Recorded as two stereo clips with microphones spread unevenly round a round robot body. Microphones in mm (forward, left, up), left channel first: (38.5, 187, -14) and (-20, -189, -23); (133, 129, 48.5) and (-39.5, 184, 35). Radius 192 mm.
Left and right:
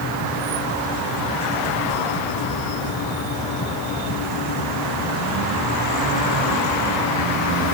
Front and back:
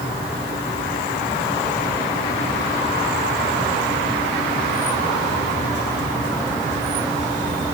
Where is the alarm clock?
I don't hear an alarm clock.